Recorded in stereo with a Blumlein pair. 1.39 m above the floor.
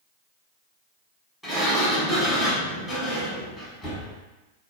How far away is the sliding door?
About 1.2 m.